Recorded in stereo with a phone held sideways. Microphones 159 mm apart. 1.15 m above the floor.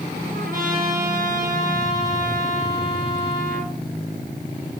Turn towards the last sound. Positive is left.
turn(degrees=-60)  # may be behind; listen again after turning